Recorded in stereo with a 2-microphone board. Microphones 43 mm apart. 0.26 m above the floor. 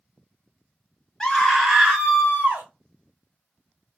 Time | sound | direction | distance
1.2 | a scream | 15° left (ahead or behind) | 1.4 m